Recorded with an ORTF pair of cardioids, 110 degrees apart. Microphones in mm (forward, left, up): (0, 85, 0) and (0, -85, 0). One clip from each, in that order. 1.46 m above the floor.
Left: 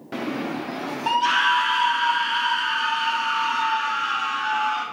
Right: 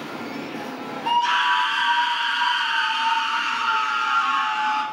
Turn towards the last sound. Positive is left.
turn(degrees=-50)